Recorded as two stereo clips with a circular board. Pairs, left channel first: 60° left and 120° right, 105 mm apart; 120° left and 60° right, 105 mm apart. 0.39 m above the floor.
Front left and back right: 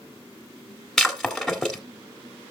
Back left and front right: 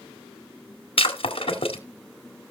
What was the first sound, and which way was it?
Breaking glass, 145° left.